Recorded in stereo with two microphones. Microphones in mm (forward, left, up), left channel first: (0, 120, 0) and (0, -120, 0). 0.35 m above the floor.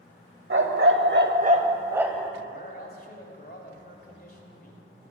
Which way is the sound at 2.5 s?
40° left (ahead or behind).